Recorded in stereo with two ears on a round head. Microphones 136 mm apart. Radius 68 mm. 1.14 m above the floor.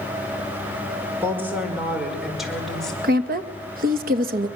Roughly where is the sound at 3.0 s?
Right.